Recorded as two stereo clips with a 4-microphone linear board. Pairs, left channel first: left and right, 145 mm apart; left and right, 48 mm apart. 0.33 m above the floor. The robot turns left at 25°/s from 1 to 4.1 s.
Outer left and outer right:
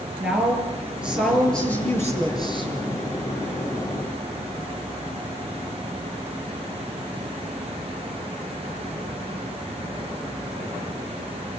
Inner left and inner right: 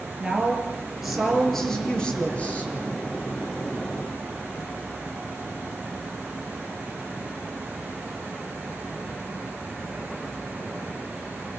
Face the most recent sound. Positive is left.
turn(degrees=110)